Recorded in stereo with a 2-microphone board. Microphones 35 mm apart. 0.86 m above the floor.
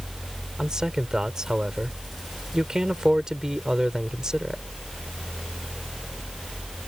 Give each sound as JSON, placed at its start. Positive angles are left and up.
{"t": 0.6, "sound": "a man speaking", "side_deg": -20}